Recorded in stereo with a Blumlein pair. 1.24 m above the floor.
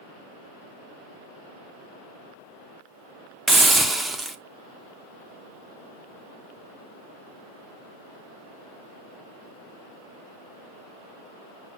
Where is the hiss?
5° right, 0.9 m.